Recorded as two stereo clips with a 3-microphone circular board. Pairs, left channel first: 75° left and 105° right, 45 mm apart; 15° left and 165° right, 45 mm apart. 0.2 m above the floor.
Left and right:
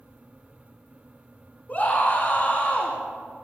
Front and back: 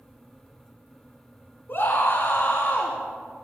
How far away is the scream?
About 2.5 m.